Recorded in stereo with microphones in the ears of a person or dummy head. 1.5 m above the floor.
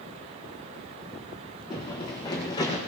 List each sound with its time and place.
1.7 s running footsteps: 25° left (ahead or behind), 3 m; by 2.8 s 20° left (ahead or behind), 3.5 m